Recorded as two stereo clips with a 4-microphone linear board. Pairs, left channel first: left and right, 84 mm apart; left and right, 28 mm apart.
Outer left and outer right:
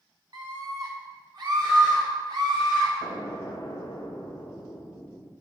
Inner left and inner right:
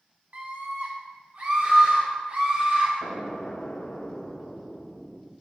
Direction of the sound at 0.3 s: 60° right (ahead or behind).